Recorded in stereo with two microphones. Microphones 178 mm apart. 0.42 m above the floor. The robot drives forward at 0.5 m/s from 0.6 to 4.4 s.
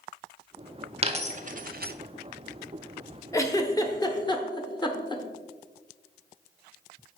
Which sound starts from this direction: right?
A dropped coin, at 1.0 s.